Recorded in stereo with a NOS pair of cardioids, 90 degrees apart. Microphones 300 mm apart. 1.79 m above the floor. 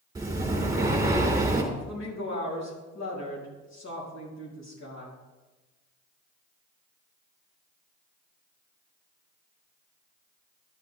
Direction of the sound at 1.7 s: 60° left.